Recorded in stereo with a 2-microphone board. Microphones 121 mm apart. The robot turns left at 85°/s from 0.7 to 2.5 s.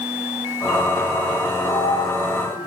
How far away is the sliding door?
About 7 m.